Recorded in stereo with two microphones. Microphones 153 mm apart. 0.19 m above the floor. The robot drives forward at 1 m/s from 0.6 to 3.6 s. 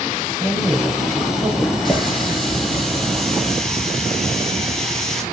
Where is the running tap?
Centre (ahead or behind), 5 m; by 5.2 s 5° left (ahead or behind), 3.5 m.